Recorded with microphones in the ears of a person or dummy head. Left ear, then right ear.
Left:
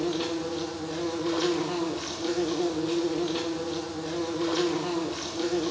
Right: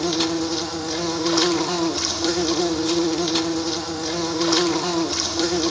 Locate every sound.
0.0 s an insect: 70° right (ahead or behind), 1.6 m